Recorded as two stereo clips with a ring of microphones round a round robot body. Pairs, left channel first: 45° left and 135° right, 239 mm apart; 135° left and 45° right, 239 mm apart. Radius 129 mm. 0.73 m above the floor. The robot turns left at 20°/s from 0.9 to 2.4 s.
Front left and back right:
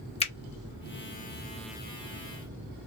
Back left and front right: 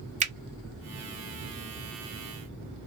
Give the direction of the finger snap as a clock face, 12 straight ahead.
12 o'clock.